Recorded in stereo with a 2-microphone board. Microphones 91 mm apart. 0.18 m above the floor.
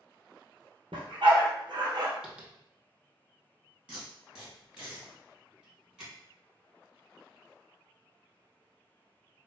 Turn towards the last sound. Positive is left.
turn(degrees=-15)  # may be behind; listen again after turning